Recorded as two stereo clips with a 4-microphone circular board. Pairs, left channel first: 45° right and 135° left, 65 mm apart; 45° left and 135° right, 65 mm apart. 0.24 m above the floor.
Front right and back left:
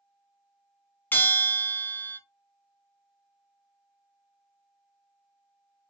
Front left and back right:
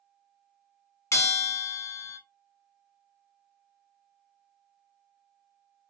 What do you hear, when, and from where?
1.1 s a bell: 10° left, 0.8 m